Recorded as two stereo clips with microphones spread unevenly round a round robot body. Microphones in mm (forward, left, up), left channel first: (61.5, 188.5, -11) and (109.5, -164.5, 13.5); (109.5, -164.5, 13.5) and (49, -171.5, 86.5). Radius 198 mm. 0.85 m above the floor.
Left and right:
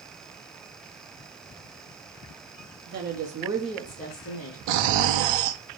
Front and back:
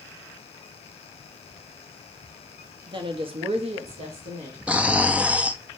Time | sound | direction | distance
2.9 | a woman speaking | 145° right | 1.3 m
4.7 | snoring | 80° right | 1.0 m